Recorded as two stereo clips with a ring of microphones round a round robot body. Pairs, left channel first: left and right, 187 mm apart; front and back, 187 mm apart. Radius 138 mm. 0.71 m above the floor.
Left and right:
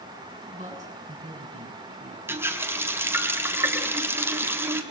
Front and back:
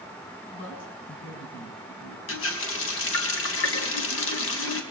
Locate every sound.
0.5 s a man speaking: 40° right, 8 m
2.3 s a running tap: 10° right, 3.5 m